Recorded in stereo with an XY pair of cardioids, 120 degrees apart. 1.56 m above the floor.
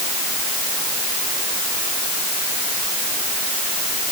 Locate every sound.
Only background noise.